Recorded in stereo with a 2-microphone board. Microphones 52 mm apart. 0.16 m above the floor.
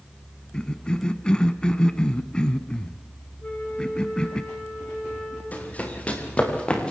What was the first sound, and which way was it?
A cough, 20° left (ahead or behind).